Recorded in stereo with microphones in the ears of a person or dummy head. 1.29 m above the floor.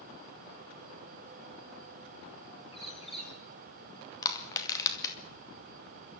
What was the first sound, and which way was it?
A bird, 35° left (ahead or behind).